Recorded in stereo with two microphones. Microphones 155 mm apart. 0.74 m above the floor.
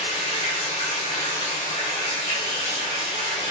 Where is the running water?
40° left (ahead or behind), 1.0 m.